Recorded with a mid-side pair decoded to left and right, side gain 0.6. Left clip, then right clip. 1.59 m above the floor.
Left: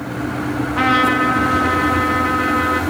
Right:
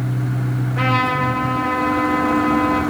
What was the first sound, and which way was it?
A trumpet, 45° left.